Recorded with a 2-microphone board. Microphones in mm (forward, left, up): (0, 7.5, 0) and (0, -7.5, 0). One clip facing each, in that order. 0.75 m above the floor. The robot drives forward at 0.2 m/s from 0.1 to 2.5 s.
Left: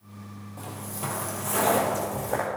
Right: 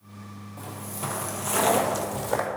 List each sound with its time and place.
0.6 s footsteps: 10° left (ahead or behind), 1.4 m; by 2.5 s 55° right (ahead or behind), 1.6 m